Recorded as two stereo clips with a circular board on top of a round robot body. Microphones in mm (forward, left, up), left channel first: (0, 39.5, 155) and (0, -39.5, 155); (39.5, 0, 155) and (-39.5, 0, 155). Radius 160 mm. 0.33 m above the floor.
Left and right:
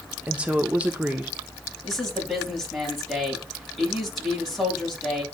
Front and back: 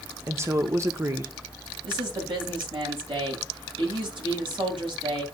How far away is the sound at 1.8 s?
About 4.5 m.